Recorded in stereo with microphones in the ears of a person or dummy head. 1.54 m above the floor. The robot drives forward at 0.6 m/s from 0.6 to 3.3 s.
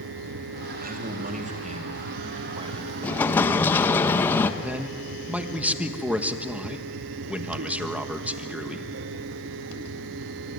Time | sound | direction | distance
0.8 | a man speaking | 50° right (ahead or behind) | 2 m
3.0 | an explosion | 15° left (ahead or behind) | 1.4 m
4.6 | a man speaking | centre (ahead or behind) | 1.7 m